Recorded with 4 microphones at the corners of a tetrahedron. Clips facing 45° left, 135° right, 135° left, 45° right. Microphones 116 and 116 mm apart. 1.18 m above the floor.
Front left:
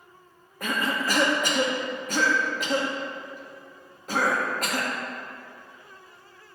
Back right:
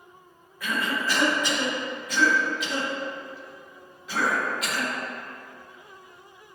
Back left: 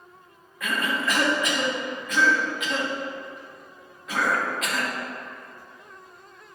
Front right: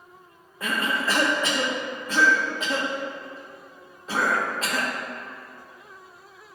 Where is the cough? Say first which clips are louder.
Front left 1 dB, even; 10° left, 1.1 m.